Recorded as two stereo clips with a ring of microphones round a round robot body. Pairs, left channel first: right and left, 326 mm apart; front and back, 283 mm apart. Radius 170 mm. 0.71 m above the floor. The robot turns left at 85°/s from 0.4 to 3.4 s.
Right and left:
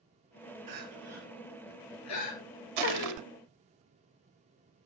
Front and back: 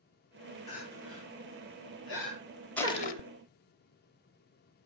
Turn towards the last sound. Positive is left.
turn(degrees=30)